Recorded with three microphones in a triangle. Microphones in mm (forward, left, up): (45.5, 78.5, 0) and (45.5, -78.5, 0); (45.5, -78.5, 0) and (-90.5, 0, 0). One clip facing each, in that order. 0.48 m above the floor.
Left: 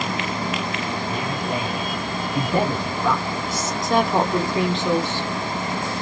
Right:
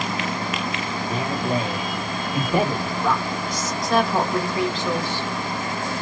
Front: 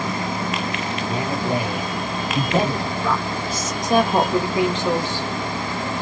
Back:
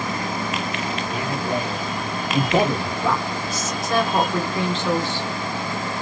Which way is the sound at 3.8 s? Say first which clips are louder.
Left 1 dB, front 3 dB; 35° left.